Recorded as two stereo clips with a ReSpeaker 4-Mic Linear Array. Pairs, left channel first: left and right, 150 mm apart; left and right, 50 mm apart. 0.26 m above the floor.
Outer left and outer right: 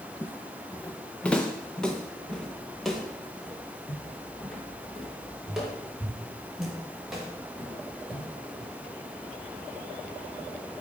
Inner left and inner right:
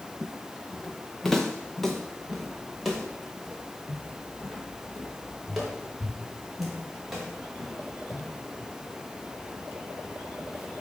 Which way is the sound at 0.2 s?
15° left (ahead or behind).